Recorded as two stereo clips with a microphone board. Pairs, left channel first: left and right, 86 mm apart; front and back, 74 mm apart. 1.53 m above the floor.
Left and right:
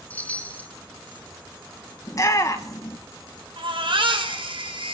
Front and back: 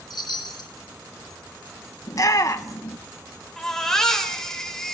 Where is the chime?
20° left, 1.8 m.